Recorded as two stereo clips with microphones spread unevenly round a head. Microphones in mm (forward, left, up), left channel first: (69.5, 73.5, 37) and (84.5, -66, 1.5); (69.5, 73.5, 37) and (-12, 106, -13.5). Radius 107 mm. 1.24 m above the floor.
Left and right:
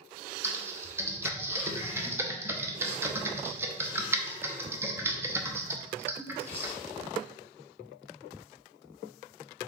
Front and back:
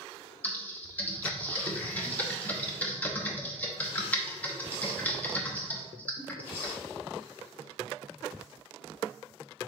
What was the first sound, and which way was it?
Typing on a keyboard, straight ahead.